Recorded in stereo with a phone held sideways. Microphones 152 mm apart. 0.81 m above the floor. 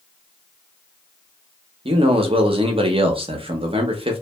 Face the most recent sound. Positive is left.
turn(degrees=-40)  # may be behind; listen again after turning